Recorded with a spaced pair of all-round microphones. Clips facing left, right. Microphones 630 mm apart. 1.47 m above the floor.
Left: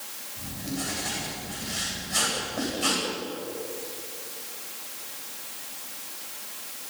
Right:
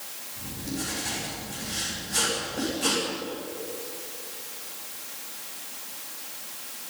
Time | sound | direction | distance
0.4 | writing | 5° left (ahead or behind) | 9 m